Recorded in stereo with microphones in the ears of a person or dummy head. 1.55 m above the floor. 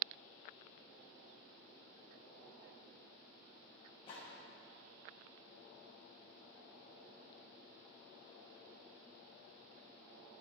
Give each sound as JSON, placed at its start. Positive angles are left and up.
{"t": 4.1, "sound": "a gunshot", "side_deg": 30, "distance_m": 1.4}